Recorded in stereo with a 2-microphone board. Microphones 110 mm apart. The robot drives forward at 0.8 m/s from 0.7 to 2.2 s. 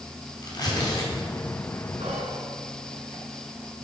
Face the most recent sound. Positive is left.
turn(degrees=-70)  # may be behind; listen again after turning